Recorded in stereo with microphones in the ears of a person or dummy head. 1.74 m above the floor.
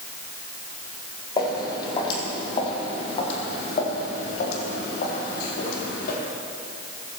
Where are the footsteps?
25° left (ahead or behind), 4.5 m; by 6.2 s 60° left (ahead or behind), 4.5 m.